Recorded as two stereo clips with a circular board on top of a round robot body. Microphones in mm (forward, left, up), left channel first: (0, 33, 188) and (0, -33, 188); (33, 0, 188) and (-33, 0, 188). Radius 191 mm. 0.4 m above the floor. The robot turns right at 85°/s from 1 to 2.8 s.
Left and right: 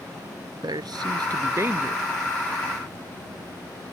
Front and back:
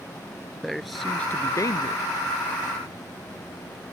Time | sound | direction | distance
0.6 | a man speaking | 90° right | ?